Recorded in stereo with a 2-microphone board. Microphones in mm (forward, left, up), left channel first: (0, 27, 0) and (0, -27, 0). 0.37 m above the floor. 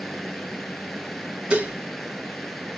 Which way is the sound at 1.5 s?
20° right (ahead or behind).